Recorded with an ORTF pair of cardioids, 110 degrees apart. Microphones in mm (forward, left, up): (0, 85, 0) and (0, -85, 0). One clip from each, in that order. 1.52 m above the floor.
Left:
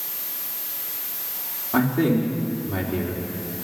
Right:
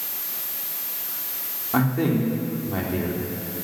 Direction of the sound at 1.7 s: 5° right.